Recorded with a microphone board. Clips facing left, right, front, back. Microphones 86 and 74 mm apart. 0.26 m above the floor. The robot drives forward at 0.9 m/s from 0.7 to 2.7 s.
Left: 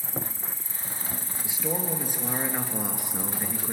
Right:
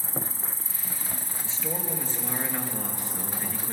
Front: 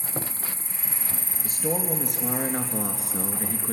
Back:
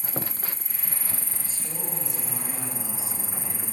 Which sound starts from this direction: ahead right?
An insect, at 0.0 s.